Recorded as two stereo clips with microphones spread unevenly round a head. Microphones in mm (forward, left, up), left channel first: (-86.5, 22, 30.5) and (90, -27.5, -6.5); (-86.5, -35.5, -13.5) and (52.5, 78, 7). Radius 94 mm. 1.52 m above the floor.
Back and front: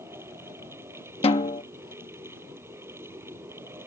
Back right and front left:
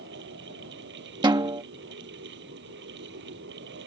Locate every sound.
0.0 s a fan: 65° left
1.2 s a snare drum: 105° left